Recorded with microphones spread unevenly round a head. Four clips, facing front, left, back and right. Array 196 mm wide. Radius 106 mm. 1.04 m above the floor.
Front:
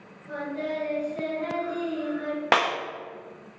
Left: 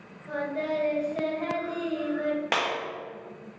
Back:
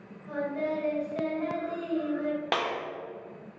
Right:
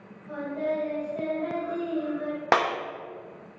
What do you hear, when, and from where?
0.3 s singing: 95° left, 2 m
2.5 s a clap: 30° right, 1.0 m